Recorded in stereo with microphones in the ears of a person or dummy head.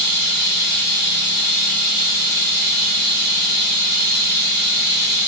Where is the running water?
55° left (ahead or behind), 2.5 m.